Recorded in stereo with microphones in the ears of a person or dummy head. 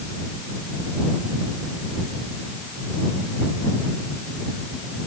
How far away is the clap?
No clap in this recording.